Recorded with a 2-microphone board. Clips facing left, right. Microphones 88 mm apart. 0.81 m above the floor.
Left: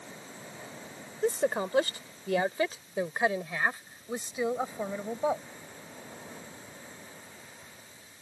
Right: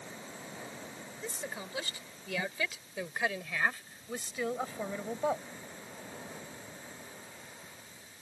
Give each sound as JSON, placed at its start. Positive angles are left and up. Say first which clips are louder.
{"t": 1.2, "sound": "a woman speaking", "louder": "left 15 dB", "side_deg": 60}